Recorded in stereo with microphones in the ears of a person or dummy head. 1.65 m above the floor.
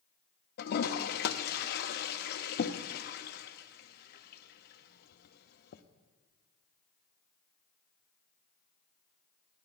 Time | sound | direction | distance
0.6 | a toilet flushing | 50° left (ahead or behind) | 0.5 m